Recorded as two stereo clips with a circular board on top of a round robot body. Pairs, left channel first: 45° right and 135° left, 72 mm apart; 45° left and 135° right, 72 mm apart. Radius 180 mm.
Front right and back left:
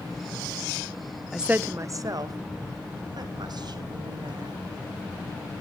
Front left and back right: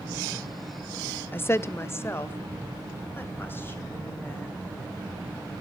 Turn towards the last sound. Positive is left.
turn(degrees=110)